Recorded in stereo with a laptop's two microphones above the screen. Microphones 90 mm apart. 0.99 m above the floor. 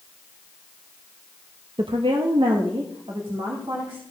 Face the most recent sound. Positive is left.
turn(degrees=-70)  # may be behind; listen again after turning